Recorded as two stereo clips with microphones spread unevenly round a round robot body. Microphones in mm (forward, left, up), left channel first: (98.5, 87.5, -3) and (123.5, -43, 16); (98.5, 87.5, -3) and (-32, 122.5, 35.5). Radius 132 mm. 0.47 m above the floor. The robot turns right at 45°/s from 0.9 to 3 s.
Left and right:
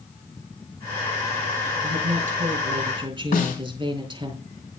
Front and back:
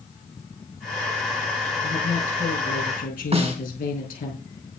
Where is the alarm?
No alarm in this recording.